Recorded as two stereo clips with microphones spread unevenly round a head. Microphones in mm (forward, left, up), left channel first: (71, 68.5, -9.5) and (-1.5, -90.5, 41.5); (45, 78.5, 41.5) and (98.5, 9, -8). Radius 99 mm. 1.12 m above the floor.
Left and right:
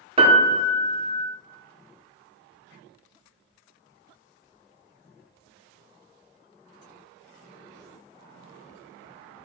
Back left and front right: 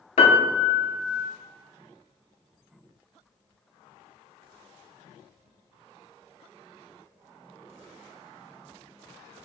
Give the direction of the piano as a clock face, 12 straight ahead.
6 o'clock.